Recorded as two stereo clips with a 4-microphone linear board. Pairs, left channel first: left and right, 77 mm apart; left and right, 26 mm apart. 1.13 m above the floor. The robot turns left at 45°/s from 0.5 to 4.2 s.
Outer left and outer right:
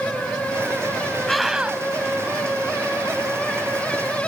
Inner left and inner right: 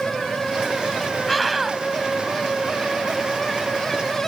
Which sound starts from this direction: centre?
A scream, at 1.3 s.